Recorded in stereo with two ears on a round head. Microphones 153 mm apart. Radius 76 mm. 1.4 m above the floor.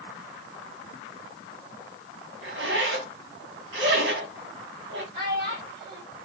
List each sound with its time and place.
2.4 s a zipper: 70° right (ahead or behind), 1.6 m
5.1 s a child speaking: 40° right (ahead or behind), 3 m